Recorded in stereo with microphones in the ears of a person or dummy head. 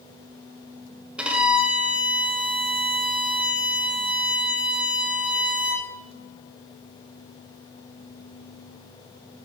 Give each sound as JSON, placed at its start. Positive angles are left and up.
{"t": 1.2, "sound": "a violin", "side_deg": -5, "distance_m": 1.1}